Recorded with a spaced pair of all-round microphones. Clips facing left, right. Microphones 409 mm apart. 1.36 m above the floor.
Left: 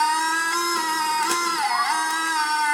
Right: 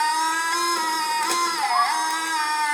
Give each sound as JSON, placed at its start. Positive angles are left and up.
{"t": 0.0, "sound": "a machine running", "side_deg": 25, "distance_m": 1.2}
{"t": 1.6, "sound": "a bird", "side_deg": -60, "distance_m": 1.8}